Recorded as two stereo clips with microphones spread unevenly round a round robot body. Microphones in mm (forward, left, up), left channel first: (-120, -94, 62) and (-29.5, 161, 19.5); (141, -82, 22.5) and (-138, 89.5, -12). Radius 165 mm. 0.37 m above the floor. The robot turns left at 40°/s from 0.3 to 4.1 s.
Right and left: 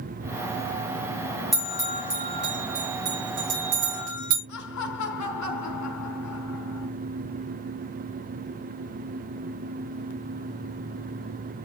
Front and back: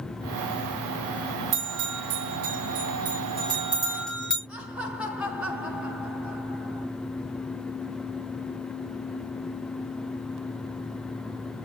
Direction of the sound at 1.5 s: 160° left.